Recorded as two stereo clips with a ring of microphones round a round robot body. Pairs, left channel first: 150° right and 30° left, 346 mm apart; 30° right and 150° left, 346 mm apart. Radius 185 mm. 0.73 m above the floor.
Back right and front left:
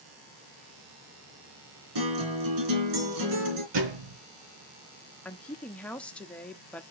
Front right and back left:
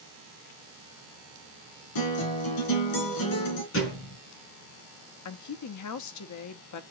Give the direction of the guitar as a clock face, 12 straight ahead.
12 o'clock.